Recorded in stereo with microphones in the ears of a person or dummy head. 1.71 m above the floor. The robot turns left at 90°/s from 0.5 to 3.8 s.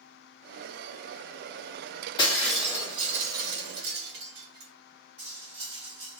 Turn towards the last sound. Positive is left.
turn(degrees=-30)  # may be behind; listen again after turning